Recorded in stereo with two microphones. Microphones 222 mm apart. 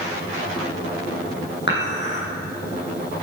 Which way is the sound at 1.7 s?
55° left (ahead or behind).